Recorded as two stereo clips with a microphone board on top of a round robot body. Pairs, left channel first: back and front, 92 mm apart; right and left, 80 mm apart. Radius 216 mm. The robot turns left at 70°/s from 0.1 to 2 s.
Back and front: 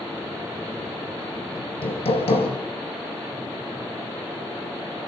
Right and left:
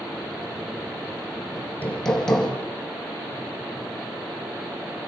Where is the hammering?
140° right, 4.5 m; by 2.5 s 175° right, 4.5 m.